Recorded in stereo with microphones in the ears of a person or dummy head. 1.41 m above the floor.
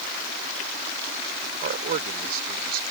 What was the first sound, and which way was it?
A man speaking, 50° right (ahead or behind).